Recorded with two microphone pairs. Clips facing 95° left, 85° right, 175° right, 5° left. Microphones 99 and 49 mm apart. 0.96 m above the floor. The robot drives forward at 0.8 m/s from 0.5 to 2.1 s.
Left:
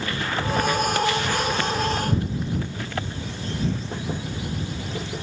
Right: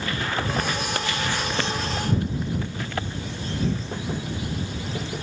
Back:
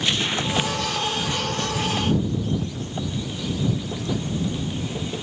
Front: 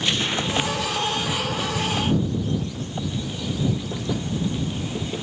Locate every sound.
Only background noise.